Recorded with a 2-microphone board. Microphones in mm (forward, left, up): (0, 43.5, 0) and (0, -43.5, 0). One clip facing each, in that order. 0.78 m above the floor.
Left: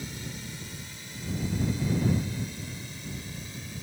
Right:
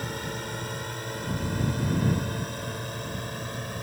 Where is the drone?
55° right (ahead or behind).